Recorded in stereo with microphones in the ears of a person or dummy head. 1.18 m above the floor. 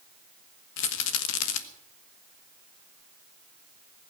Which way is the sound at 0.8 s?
65° left (ahead or behind).